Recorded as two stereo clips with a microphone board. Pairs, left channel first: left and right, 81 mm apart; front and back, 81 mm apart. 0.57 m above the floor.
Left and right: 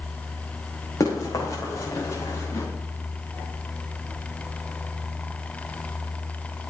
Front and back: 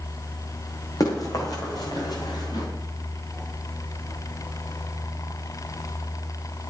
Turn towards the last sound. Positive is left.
turn(degrees=35)